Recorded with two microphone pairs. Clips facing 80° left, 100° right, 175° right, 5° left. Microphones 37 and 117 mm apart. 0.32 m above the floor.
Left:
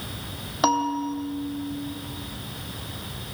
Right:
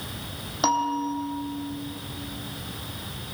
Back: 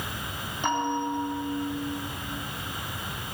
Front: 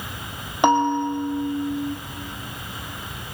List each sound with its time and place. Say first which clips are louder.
0.6 s a bell: left 1 dB, front 9 dB; 5° left, 2.0 m